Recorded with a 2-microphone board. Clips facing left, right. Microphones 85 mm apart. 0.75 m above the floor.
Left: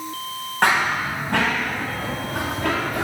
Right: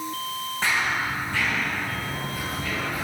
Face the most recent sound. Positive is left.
turn(degrees=70)  # may be behind; listen again after turning